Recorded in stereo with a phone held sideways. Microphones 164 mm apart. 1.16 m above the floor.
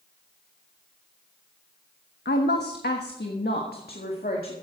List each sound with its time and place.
2.2 s a woman speaking: 85° left, 1.0 m; by 4.5 s 60° left (ahead or behind), 2 m